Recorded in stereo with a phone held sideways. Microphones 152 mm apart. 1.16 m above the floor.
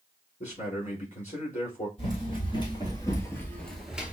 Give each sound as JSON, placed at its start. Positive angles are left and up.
{"t": 0.4, "sound": "a man speaking", "side_deg": 50, "distance_m": 3.5}
{"t": 2.0, "sound": "running footsteps", "side_deg": 40, "distance_m": 2.5}